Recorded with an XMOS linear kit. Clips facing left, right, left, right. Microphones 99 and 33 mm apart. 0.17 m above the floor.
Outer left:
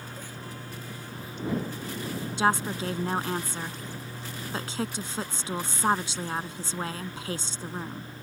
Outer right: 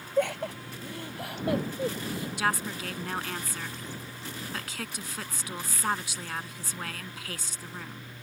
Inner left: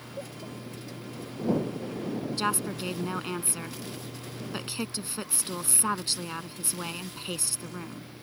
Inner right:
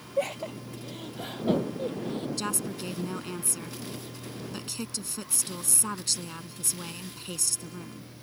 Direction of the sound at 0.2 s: 75° right (ahead or behind).